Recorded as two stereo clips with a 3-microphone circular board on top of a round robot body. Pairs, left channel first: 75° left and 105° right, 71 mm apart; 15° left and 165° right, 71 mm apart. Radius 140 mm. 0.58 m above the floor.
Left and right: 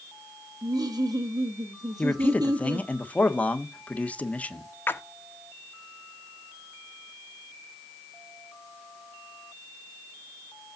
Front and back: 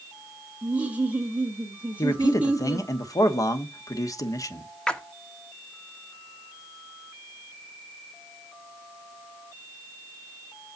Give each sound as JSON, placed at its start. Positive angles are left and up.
{"t": 0.6, "sound": "laughter", "azimuth_deg": -100, "distance_m": 1.6}
{"t": 2.0, "sound": "a man speaking", "azimuth_deg": 10, "distance_m": 1.4}
{"t": 4.9, "sound": "a splash", "azimuth_deg": 80, "distance_m": 1.0}